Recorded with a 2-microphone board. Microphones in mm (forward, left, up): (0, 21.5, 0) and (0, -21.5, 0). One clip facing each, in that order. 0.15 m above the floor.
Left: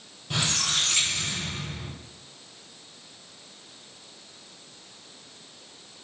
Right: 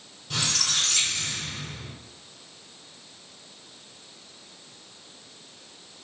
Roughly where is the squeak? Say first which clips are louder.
Left 1 dB; centre.